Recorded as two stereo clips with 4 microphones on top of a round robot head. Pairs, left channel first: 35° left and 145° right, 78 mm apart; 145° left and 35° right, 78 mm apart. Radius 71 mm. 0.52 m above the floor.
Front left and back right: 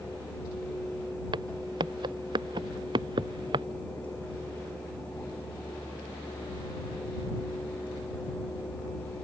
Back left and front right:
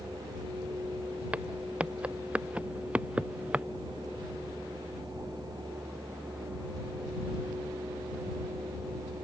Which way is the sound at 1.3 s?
110° right.